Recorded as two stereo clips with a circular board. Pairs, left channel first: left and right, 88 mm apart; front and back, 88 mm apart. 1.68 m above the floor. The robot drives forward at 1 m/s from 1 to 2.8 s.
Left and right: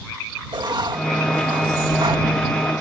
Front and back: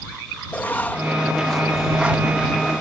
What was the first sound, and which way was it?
Writing, 70° right.